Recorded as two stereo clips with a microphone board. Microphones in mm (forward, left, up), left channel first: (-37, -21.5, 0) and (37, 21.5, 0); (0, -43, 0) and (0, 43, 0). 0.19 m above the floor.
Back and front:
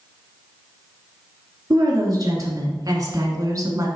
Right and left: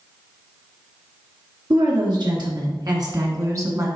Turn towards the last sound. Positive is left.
turn(degrees=55)